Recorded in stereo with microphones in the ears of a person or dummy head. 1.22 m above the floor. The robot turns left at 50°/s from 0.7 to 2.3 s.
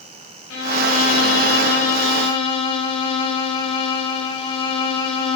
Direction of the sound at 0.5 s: 100° left.